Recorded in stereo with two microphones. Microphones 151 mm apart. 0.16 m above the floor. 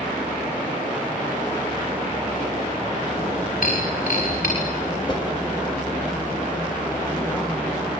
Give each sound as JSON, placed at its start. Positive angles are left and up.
{"t": 3.6, "sound": "breaking glass", "side_deg": 65, "distance_m": 8.5}
{"t": 5.1, "sound": "a whoosh", "side_deg": 30, "distance_m": 1.2}